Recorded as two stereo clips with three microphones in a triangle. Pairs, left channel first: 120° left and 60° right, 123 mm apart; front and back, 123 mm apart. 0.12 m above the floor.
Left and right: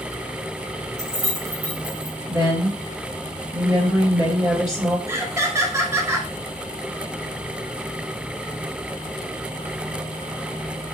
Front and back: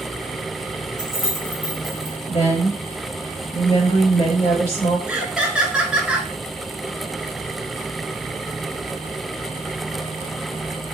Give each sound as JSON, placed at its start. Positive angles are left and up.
{"t": 1.0, "sound": "keys jangling", "azimuth_deg": -60, "distance_m": 1.7}
{"t": 2.3, "sound": "a woman speaking", "azimuth_deg": -5, "distance_m": 2.5}
{"t": 5.1, "sound": "laughter", "azimuth_deg": -105, "distance_m": 1.3}